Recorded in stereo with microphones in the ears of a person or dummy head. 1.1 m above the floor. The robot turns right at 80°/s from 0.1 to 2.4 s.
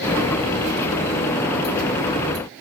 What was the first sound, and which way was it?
Only background noise.